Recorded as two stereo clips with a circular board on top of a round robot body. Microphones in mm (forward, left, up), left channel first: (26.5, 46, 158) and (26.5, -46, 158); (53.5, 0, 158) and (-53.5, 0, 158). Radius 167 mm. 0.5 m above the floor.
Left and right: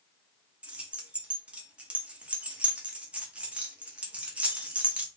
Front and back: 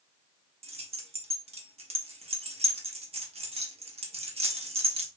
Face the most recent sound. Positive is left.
turn(degrees=-165)